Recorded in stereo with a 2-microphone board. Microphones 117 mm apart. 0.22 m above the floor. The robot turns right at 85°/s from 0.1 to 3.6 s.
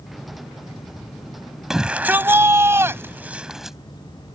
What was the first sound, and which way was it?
A shout, 5° right (ahead or behind).